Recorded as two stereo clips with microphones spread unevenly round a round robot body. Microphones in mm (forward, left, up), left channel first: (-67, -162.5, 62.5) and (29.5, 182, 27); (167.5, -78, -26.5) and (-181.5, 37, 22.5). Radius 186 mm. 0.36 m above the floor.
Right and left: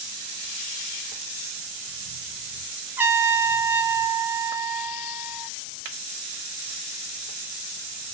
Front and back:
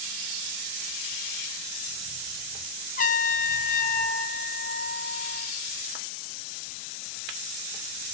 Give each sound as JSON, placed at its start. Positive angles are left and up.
{"t": 3.0, "sound": "a trumpet", "azimuth_deg": 5, "distance_m": 1.0}